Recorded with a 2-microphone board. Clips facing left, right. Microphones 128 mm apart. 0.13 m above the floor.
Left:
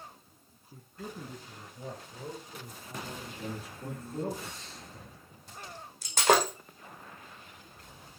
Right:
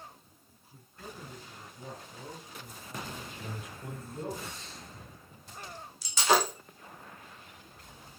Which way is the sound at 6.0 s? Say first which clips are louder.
Left 2 dB; 50° left (ahead or behind).